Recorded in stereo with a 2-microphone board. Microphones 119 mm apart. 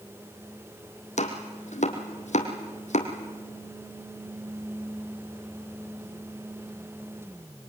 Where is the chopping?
85° left, 3 m.